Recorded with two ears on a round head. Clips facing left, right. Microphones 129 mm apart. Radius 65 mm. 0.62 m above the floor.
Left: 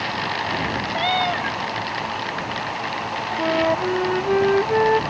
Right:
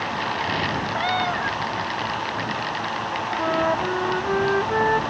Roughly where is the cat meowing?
Left.